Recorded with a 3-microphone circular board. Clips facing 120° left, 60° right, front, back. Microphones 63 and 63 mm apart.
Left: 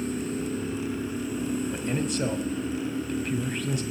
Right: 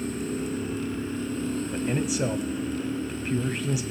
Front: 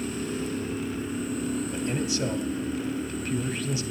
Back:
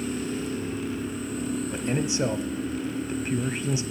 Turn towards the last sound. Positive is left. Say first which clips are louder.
# right 1 dB, back 1 dB
turn(degrees=-135)